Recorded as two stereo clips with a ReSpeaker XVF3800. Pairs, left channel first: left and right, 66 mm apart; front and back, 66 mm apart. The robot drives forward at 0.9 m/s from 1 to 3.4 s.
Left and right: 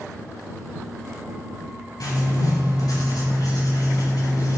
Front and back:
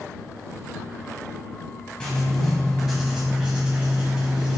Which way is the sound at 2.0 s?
80° left.